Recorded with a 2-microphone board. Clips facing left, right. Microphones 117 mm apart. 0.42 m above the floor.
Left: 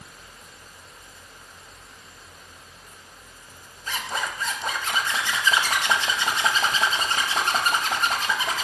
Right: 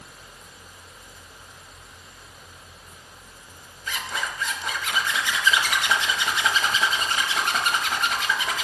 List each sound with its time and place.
3.9 s a zipper: 35° left (ahead or behind), 0.8 m